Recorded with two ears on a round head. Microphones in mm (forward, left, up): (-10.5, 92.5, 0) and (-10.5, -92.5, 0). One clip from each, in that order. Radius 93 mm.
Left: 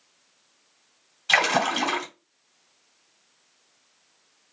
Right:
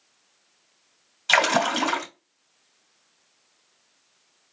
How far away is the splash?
About 2.5 m.